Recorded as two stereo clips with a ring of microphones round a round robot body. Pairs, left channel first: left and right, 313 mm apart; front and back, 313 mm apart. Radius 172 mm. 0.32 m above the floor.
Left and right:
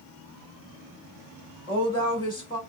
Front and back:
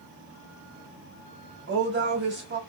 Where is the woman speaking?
160° left, 1.6 m.